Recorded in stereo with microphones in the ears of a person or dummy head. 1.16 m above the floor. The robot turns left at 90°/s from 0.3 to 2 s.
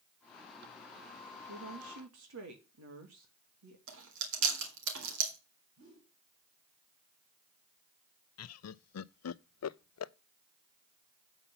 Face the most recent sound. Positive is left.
turn(degrees=75)  # may be behind; listen again after turning